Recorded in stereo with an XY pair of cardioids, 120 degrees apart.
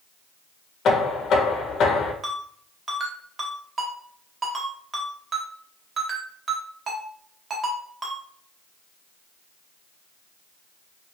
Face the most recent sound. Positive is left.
turn(degrees=-35)